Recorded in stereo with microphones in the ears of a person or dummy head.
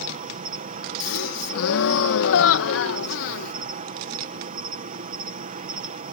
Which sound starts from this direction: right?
An insect, at 0.0 s.